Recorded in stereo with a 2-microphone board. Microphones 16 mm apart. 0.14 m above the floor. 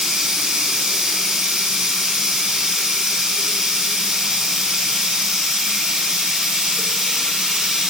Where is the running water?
60° right (ahead or behind), 1.1 m.